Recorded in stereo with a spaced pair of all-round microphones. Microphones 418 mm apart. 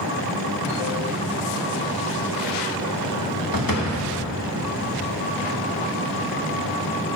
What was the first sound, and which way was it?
A door slam, 55° left (ahead or behind).